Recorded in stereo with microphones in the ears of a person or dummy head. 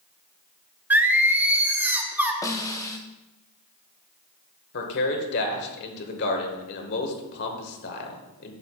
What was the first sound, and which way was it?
Singing, 5° right (ahead or behind).